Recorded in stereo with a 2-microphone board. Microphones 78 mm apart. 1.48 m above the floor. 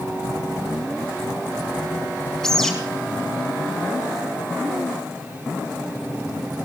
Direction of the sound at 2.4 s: 5° left (ahead or behind).